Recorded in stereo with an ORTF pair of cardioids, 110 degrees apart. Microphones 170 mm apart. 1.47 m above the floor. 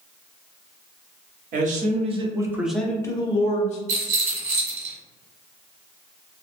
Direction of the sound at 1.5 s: 50° right.